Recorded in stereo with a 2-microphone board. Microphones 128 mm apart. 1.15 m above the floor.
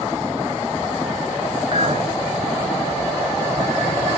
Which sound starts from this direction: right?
A clink, at 1.7 s.